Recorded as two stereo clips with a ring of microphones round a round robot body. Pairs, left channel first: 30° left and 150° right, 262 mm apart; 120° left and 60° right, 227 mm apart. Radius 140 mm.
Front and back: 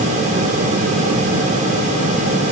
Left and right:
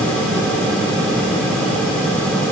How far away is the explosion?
I don't hear an explosion.